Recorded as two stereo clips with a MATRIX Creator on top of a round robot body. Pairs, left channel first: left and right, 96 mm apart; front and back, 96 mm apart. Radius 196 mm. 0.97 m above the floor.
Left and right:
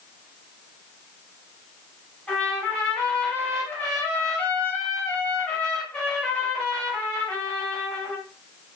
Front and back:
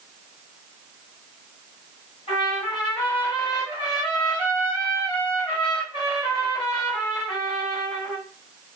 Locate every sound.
2.3 s a trumpet: 15° left, 1.5 m